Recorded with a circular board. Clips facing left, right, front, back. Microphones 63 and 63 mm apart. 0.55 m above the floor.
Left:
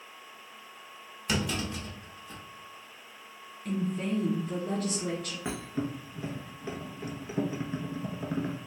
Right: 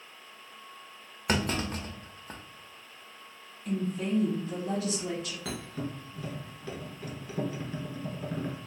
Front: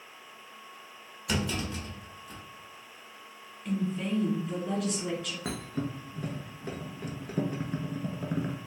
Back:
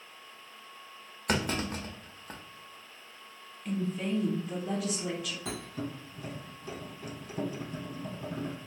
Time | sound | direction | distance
1.3 | a clunk | 135° right | 0.5 m
3.6 | a woman speaking | 90° left | 1.9 m
5.5 | a thud | 25° left | 0.9 m